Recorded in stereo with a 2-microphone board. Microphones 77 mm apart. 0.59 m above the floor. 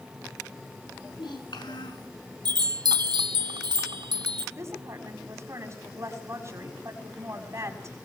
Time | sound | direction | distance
0.9 | a child speaking | 75° left (ahead or behind) | 5.5 m
2.5 | a chime | 75° right (ahead or behind) | 1.1 m
4.6 | a woman speaking | 40° right (ahead or behind) | 5.5 m